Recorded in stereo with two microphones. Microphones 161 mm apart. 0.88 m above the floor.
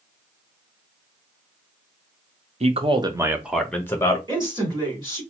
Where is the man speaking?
45° right (ahead or behind), 0.7 m; by 4.2 s 25° left (ahead or behind), 0.7 m.